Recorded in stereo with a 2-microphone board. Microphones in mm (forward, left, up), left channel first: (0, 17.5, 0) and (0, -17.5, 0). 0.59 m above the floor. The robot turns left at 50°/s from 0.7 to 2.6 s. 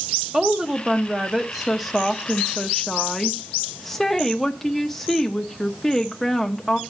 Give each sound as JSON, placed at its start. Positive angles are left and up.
{"t": 0.3, "sound": "a woman speaking", "side_deg": -20, "distance_m": 0.9}